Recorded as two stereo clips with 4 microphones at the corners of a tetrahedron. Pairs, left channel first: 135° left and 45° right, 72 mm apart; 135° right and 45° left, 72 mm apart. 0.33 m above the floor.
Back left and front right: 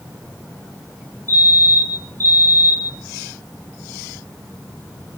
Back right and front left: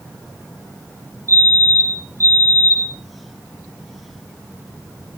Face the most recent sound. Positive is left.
turn(degrees=0)